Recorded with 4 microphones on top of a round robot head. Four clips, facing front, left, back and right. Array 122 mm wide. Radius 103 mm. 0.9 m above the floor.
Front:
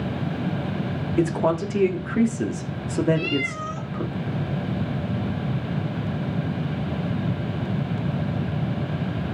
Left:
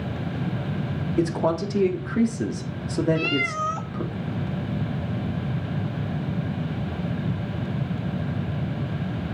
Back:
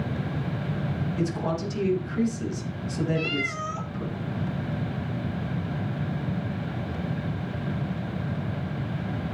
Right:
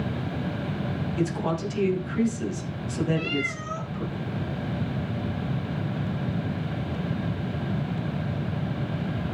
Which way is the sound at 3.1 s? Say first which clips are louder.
Left 3 dB, front 3 dB; 100° left.